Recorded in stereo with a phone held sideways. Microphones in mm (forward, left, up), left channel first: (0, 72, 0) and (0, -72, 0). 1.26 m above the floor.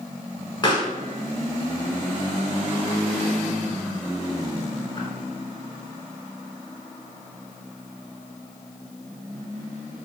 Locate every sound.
0.6 s a pop: 30° left (ahead or behind), 1.1 m